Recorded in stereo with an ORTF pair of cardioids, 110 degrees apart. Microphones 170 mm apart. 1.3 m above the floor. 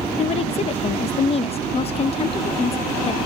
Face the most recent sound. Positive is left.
turn(degrees=35)